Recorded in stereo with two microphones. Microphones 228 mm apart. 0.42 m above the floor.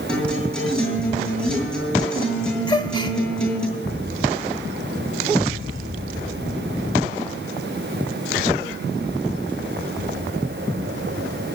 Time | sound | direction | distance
0.1 | a guitar | 5° left (ahead or behind) | 7 m
2.7 | a gasp | 20° left (ahead or behind) | 1.3 m